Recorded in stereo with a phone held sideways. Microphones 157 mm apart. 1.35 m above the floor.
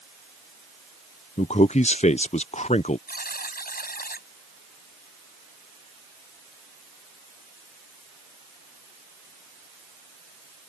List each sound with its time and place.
1.4 s a man speaking: 45° left (ahead or behind)
3.1 s a buzzer: 75° left (ahead or behind)